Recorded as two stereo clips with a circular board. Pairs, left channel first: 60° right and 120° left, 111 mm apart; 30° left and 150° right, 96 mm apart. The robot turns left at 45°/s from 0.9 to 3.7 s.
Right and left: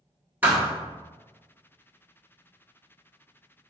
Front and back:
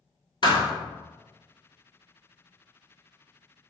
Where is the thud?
50° left, 1.0 m.